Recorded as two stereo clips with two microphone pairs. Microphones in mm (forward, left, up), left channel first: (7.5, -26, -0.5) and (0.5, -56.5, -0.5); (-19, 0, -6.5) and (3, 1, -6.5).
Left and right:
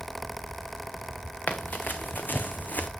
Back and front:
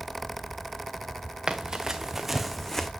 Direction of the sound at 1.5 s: 50° left.